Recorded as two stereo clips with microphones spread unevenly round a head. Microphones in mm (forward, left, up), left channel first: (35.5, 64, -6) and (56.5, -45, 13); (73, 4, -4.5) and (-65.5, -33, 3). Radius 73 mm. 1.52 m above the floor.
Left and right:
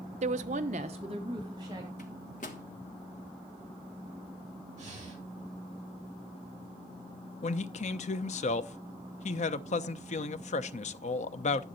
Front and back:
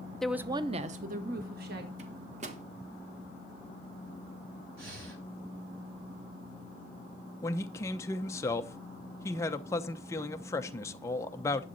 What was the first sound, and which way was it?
A woman speaking, 70° right.